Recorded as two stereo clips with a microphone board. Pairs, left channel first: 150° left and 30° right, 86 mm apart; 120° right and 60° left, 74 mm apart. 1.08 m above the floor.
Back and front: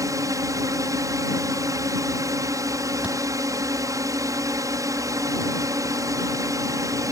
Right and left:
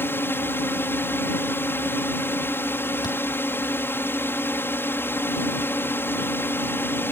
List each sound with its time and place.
0.0 s a drone: 65° right
3.0 s a thud: 105° right